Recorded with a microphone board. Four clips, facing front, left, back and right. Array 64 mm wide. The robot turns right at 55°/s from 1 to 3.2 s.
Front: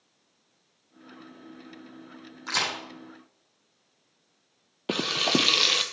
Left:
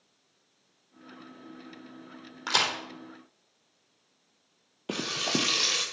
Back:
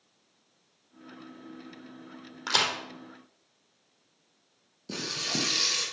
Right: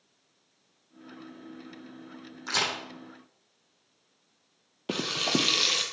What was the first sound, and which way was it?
A crack, 130° left.